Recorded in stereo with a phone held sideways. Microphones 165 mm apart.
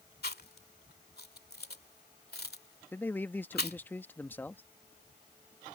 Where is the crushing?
No crushing in this recording.